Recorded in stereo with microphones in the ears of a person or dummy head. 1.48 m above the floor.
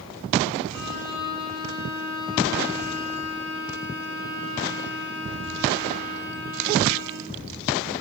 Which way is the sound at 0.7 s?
85° left.